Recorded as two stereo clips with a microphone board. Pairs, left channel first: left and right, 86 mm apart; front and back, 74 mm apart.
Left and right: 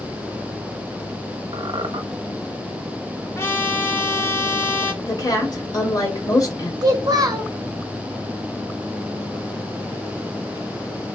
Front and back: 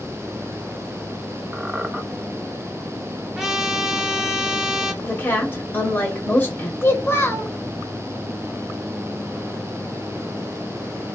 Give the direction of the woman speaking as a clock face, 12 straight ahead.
10 o'clock.